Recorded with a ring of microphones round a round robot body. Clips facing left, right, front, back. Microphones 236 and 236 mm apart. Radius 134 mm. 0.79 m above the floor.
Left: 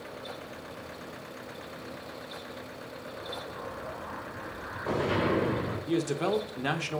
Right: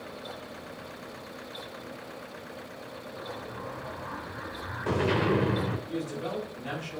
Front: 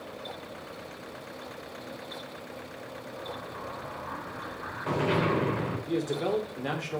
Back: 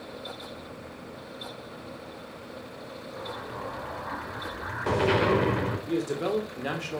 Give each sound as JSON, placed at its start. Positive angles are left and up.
{"t": 3.2, "sound": "an explosion", "azimuth_deg": -145, "distance_m": 2.5}
{"t": 5.9, "sound": "a man speaking", "azimuth_deg": 95, "distance_m": 2.5}